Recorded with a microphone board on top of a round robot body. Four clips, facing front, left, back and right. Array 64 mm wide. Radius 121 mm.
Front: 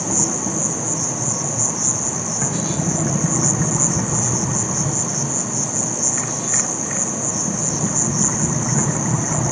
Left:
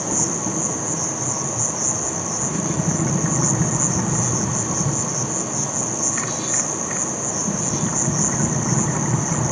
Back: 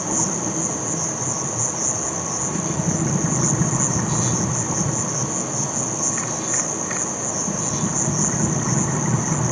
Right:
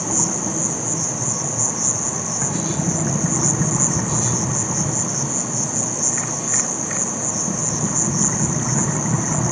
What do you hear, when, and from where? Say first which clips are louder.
0.0 s an insect: even, front 1 dB; 30° right, 1.0 m